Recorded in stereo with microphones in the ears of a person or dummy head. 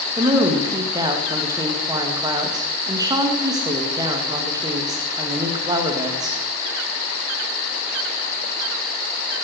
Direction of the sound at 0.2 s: 25° right (ahead or behind).